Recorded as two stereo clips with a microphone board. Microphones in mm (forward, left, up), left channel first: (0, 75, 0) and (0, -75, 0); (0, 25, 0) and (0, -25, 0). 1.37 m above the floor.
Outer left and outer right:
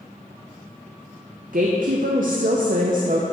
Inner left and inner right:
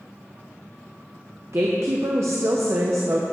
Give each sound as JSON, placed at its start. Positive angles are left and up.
{"t": 1.5, "sound": "a woman speaking", "side_deg": -65, "distance_m": 0.6}